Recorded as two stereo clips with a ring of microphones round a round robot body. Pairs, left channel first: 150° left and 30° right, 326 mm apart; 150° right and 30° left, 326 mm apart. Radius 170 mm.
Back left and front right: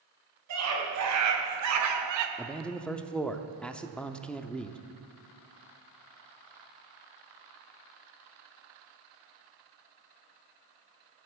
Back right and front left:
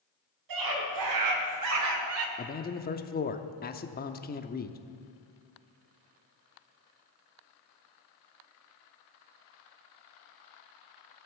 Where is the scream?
10° left, 4 m; by 2.3 s 10° right, 1.6 m.